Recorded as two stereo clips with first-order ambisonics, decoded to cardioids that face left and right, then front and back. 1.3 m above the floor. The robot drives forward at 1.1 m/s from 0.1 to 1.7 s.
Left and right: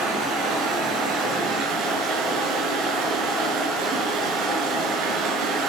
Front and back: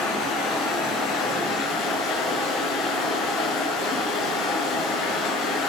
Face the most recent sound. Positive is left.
turn(degrees=-50)